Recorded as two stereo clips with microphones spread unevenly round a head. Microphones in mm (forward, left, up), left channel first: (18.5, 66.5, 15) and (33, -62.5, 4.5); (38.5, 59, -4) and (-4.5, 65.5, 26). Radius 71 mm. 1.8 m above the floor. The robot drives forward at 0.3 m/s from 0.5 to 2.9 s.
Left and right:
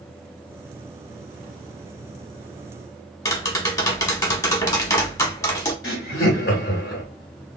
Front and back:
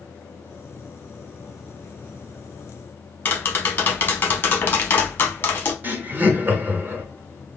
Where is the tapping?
75° left, 0.9 m.